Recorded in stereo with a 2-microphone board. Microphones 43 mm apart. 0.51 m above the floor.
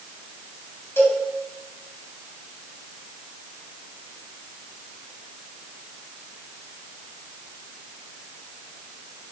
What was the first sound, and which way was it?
A cowbell, 75° left (ahead or behind).